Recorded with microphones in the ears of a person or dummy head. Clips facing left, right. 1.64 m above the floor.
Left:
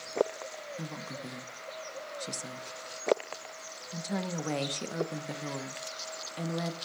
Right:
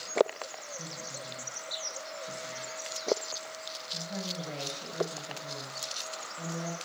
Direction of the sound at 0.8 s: 60° left (ahead or behind).